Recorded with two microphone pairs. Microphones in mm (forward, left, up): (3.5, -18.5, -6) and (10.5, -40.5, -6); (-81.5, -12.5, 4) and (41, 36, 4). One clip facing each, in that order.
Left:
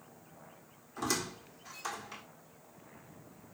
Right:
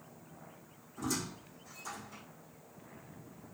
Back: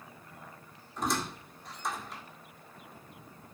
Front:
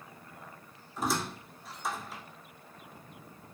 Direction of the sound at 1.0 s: 110° left.